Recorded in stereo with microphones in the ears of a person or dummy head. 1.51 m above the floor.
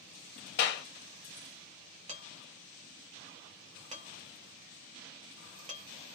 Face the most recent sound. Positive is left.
turn(degrees=-35)  # may be behind; listen again after turning